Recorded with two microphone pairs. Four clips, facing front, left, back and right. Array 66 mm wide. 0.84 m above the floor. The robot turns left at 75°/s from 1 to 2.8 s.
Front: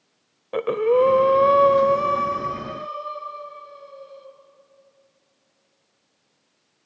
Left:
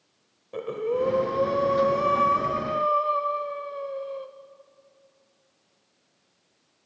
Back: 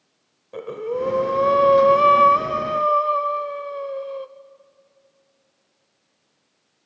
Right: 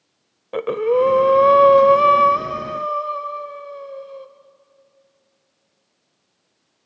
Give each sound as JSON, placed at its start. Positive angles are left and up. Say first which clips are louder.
{"t": 0.5, "sound": "breathing", "louder": "right 9 dB, front 8 dB", "azimuth_deg": -45, "distance_m": 1.0}